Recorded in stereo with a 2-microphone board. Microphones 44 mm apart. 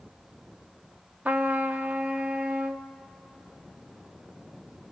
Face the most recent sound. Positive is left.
turn(degrees=-40)  # may be behind; listen again after turning